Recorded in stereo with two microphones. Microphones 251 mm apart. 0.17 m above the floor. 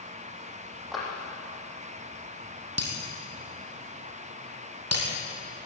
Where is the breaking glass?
80° right, 4.5 m.